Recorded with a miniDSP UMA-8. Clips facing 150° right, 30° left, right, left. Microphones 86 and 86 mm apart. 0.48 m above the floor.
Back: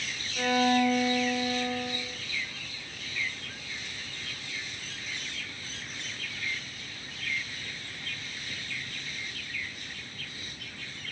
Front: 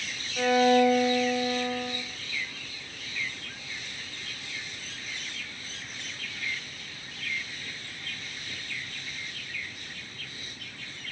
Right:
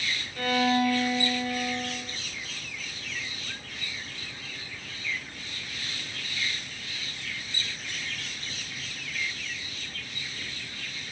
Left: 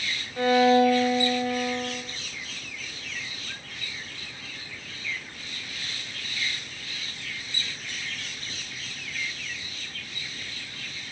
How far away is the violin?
About 0.6 m.